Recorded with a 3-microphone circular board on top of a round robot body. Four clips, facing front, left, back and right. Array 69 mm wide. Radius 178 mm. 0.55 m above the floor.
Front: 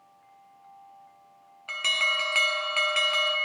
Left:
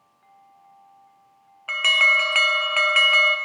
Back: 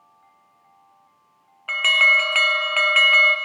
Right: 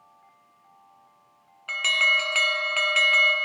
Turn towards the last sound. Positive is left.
turn(degrees=145)